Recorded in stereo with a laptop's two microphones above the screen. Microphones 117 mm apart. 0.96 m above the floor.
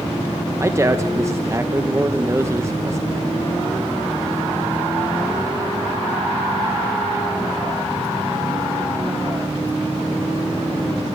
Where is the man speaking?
25° right (ahead or behind), 1.0 m.